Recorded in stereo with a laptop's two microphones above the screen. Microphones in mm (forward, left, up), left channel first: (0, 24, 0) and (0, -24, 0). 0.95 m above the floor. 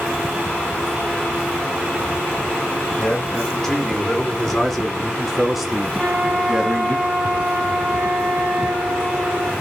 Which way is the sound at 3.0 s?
10° left (ahead or behind).